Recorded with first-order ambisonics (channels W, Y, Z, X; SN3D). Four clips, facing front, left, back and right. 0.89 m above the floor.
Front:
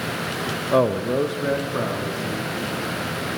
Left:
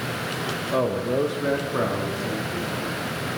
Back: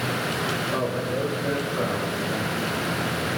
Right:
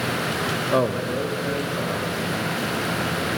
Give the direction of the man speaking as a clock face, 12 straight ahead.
1 o'clock.